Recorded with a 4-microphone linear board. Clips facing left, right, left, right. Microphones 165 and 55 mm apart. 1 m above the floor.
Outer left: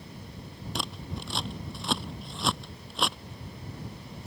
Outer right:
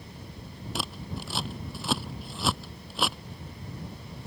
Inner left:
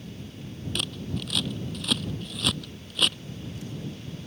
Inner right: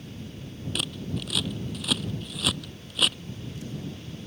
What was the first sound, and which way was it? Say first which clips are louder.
Scissors: outer right 1 dB, even; 5° right (ahead or behind).